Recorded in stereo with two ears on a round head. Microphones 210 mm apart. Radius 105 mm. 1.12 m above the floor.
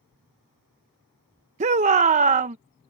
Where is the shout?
30° right (ahead or behind).